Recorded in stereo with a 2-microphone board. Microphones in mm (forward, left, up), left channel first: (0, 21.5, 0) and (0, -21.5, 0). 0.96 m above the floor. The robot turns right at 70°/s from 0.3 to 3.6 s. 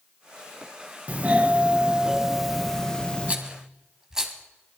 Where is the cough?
I don't hear a cough.